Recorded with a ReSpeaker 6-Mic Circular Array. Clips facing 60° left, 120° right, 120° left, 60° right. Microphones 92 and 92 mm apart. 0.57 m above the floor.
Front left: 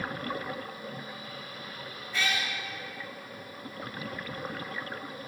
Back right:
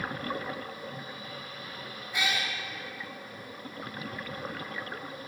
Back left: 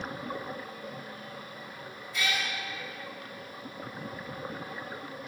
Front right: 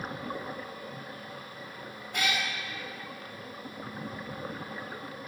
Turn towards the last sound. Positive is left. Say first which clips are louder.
# even, front right 1 dB
turn(degrees=-45)